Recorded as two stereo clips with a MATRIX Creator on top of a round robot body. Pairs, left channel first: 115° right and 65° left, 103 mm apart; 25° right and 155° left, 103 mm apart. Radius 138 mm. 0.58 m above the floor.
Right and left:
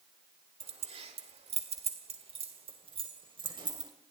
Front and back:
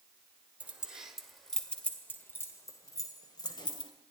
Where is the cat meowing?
No cat meowing in this recording.